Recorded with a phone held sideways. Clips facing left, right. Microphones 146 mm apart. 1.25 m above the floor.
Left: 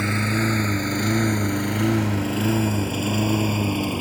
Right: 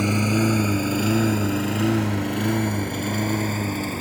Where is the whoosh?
No whoosh in this recording.